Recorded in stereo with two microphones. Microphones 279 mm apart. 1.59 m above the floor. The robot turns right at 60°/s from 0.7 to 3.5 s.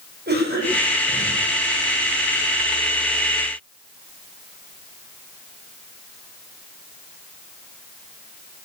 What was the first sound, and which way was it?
A cough, 35° right.